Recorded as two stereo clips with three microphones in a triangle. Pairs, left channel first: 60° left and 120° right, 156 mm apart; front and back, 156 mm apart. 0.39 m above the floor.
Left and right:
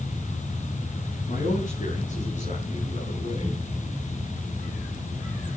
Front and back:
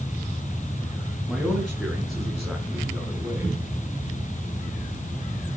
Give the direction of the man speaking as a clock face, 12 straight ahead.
9 o'clock.